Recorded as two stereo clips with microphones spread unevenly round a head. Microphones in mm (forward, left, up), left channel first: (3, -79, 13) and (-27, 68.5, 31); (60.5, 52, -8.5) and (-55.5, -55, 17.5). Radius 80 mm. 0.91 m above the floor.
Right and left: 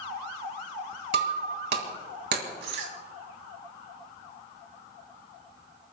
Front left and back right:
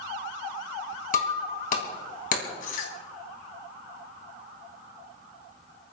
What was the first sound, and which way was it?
Breaking glass, 80° left.